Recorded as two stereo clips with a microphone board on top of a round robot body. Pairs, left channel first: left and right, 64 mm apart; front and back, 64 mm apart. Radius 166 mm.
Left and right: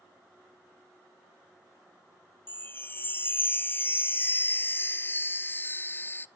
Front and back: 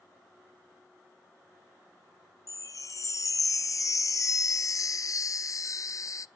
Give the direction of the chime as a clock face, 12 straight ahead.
11 o'clock.